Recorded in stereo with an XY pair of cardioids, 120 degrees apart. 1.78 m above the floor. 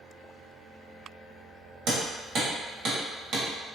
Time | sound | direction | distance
1.9 | hammering | 60° right | 1.3 m